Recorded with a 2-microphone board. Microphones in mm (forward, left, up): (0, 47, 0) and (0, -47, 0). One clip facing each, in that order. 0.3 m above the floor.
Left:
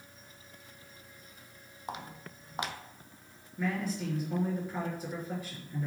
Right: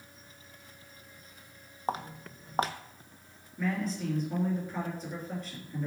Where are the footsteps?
35° right (ahead or behind), 0.7 m.